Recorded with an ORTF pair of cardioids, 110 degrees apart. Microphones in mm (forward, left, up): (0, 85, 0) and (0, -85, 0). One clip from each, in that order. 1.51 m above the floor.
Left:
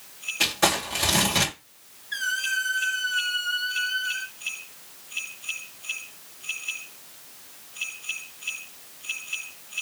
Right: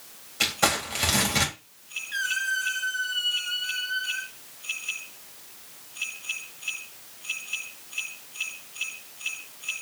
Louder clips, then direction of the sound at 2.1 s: Left 1 dB; 15° left.